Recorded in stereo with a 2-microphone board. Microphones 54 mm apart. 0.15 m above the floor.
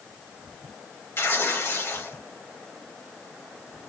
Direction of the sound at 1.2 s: 50° left (ahead or behind).